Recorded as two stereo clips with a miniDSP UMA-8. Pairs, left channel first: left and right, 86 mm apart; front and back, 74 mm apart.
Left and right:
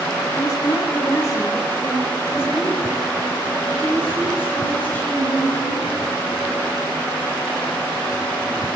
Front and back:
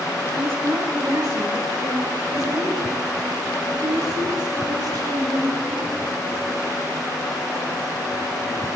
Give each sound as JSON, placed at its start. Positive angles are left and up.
{"t": 0.3, "sound": "a woman speaking", "azimuth_deg": 130, "distance_m": 3.0}